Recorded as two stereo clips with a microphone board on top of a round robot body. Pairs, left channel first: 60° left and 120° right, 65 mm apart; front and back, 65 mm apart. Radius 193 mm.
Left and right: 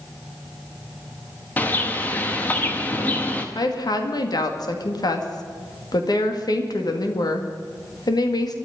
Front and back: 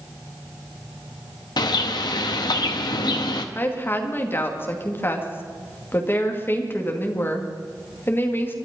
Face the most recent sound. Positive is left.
turn(degrees=55)